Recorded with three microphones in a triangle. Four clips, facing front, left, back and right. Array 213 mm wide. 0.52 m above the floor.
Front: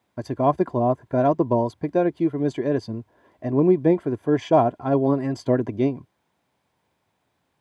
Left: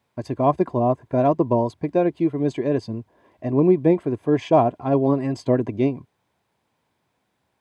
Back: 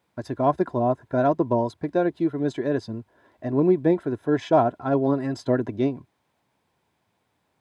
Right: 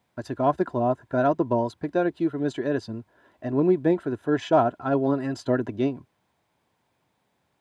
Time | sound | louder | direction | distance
0.2 | a man speaking | left 3 dB, front 1 dB | 65° left | ?